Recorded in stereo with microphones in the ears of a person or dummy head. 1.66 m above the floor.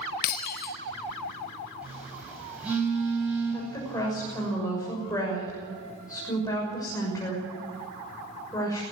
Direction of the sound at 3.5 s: 20° left (ahead or behind).